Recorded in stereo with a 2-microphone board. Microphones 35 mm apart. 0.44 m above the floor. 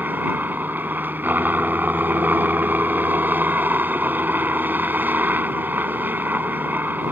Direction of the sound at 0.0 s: 65° right (ahead or behind).